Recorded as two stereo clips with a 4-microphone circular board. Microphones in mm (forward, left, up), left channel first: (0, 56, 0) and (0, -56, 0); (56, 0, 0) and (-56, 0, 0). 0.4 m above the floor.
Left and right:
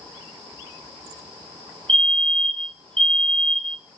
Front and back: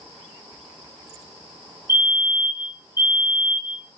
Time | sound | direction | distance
1.9 | a fire alarm | 115° right | 3.5 m